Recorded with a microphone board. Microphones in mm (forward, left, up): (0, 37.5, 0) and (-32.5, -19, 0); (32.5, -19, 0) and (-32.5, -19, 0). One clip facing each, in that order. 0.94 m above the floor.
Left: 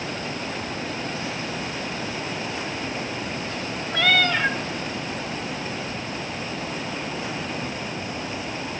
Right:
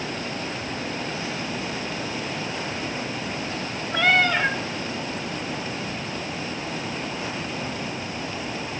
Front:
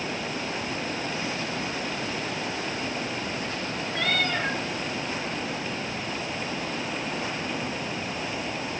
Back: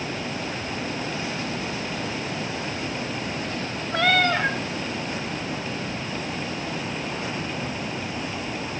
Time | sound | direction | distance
3.9 | a cat meowing | 170° left | 1.2 m